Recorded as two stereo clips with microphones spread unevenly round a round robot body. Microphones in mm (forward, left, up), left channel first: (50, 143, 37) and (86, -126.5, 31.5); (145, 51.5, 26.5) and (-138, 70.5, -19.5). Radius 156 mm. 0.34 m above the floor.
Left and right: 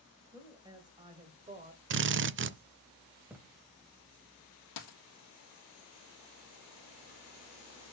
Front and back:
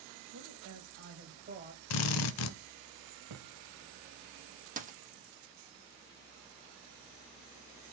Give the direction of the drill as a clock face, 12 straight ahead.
1 o'clock.